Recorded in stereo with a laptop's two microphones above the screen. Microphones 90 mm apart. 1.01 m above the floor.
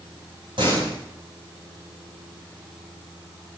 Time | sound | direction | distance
0.6 | a door slam | 65° right (ahead or behind) | 6 m